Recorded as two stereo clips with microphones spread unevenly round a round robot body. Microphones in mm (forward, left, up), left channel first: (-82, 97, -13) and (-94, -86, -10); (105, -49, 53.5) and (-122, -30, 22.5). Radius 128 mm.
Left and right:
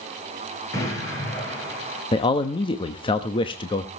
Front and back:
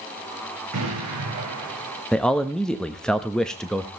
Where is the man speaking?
95° left, 1.0 m.